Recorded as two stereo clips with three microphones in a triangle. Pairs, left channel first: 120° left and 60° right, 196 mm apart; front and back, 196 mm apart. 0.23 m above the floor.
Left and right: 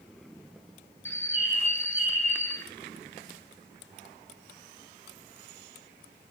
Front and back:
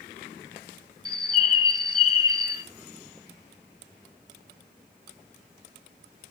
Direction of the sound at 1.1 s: 45° left.